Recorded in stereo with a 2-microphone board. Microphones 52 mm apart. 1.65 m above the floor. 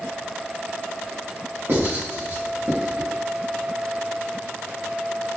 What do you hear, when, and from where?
1.7 s writing: 55° right (ahead or behind), 1.9 m